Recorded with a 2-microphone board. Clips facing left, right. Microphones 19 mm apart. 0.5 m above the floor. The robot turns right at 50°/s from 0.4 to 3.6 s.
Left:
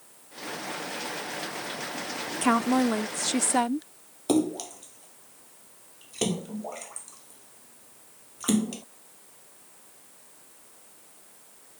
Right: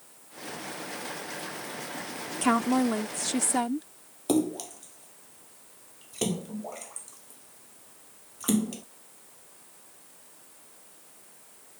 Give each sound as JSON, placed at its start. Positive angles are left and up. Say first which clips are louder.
{"t": 2.4, "sound": "a woman speaking", "louder": "left 1 dB", "side_deg": 0}
{"t": 4.3, "sound": "a splash", "louder": "left 1 dB", "side_deg": 15}